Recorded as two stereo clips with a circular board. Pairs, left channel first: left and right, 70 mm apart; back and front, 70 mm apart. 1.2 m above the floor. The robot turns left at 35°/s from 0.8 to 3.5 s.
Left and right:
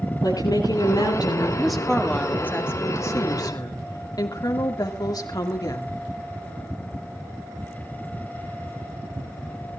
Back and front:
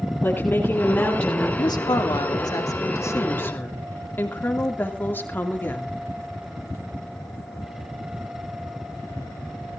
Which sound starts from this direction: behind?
A woman speaking, at 1.6 s.